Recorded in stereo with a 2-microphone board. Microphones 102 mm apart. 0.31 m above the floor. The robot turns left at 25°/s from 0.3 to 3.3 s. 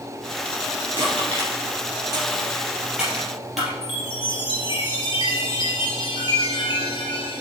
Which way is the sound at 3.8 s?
55° left (ahead or behind).